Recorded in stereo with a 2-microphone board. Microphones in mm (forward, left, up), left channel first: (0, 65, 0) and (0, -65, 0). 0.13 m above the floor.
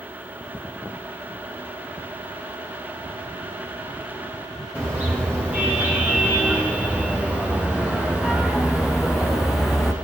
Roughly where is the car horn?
Centre.